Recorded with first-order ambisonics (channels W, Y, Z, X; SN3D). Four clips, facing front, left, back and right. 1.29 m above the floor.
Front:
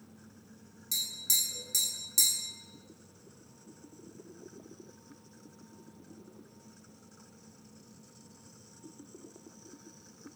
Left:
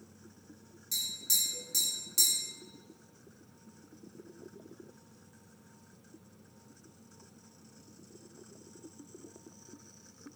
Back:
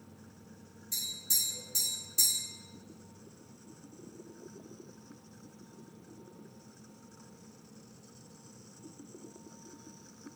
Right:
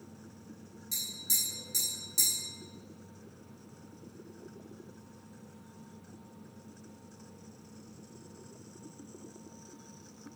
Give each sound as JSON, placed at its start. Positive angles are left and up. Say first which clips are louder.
{"t": 0.9, "sound": "tapping", "louder": "left 2 dB, front 3 dB", "azimuth_deg": 5, "distance_m": 1.9}